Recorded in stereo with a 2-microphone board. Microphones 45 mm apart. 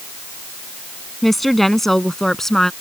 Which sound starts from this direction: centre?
A woman speaking, at 1.2 s.